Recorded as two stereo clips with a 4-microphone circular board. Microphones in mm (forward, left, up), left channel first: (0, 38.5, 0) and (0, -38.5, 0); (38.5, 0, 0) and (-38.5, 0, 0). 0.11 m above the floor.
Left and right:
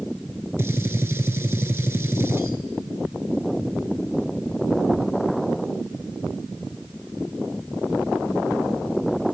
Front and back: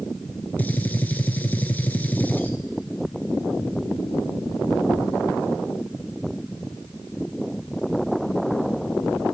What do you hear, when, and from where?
0.6 s a gunshot: 55° right, 0.7 m